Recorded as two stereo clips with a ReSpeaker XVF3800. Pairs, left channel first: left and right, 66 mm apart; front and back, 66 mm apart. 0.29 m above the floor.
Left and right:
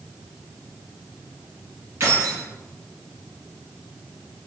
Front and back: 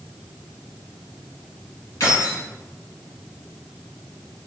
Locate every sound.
2.0 s keys jangling: 40° right, 2 m